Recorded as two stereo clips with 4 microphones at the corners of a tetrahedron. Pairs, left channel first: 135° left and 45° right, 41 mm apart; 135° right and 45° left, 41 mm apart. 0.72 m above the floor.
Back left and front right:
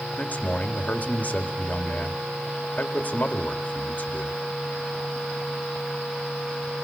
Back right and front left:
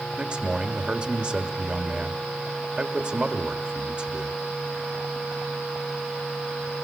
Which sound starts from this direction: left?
A man speaking, at 0.2 s.